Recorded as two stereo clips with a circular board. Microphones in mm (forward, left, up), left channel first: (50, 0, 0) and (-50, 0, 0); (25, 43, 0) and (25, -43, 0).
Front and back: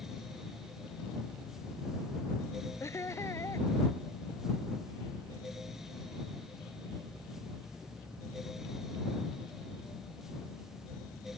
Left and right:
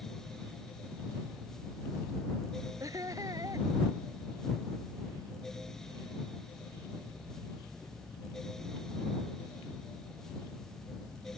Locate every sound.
2.8 s laughter: 55° right